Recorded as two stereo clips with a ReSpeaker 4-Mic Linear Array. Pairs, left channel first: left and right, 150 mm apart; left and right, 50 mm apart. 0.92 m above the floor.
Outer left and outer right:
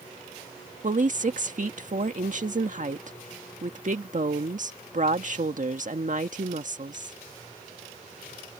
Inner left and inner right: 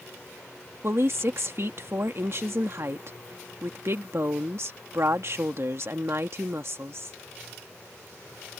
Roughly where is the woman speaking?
Right.